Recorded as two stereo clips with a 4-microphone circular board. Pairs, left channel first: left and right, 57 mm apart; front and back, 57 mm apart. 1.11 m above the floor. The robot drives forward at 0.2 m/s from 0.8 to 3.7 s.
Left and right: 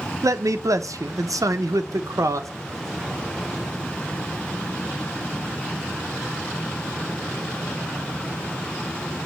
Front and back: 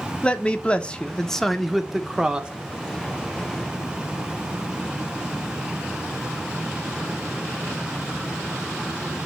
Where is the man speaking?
70° right, 0.5 m; by 2.5 s 110° right, 0.5 m.